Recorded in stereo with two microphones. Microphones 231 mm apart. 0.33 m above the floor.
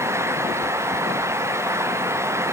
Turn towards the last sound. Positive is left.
No sound to turn to.